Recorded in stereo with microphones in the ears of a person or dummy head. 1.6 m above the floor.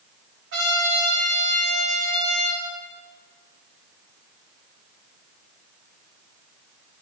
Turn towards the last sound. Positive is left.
turn(degrees=-60)  # may be behind; listen again after turning